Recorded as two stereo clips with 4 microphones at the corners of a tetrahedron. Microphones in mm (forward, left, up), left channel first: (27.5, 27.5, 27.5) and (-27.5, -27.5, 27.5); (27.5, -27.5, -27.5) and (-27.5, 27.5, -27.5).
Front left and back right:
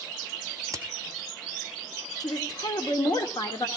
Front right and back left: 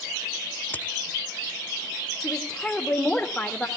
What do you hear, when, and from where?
0.7 s a crack: 100° right, 0.8 m
2.2 s a woman speaking: 35° left, 1.9 m